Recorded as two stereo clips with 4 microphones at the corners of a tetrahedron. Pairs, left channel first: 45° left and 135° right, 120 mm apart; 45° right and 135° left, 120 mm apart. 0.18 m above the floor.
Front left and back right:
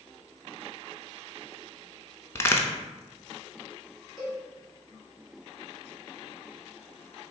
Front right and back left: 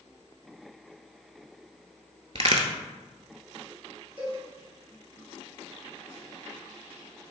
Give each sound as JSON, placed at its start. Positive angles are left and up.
{"t": 2.4, "sound": "a crack", "azimuth_deg": 110, "distance_m": 0.5}
{"t": 4.2, "sound": "a cowbell", "azimuth_deg": 135, "distance_m": 1.6}